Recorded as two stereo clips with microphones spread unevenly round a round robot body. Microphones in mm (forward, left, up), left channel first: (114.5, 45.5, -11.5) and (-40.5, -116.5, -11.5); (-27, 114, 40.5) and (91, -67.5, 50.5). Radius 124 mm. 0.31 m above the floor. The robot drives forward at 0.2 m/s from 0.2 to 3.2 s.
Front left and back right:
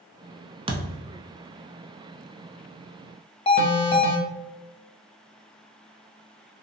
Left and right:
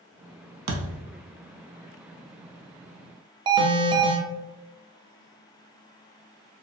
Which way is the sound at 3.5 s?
Straight ahead.